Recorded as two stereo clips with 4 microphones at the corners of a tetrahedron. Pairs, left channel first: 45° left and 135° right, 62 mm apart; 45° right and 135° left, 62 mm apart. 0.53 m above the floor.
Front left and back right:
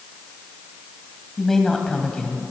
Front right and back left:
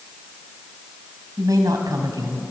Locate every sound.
1.4 s a woman speaking: 130° left, 3 m; by 2.4 s 120° left, 3 m